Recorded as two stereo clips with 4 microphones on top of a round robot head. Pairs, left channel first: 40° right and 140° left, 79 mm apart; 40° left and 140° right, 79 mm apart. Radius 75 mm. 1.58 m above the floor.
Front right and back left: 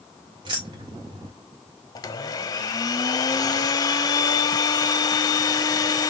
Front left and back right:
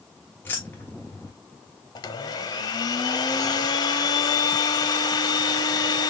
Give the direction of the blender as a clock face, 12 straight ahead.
12 o'clock.